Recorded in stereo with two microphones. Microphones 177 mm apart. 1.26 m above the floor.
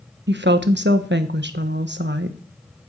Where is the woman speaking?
70° right (ahead or behind), 1.3 m.